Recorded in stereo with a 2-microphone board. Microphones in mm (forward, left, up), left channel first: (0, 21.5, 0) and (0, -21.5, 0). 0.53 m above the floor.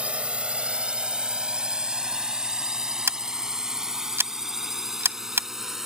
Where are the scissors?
65° right (ahead or behind).